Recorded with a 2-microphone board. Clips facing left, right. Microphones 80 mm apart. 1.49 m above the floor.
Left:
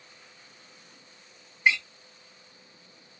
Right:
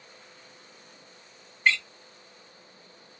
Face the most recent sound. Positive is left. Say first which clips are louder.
# even
turn(degrees=15)  # may be behind; listen again after turning